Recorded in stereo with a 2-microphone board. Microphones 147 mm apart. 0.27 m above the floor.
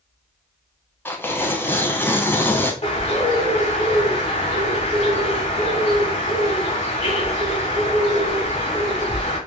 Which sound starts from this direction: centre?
Tearing paper, at 1.1 s.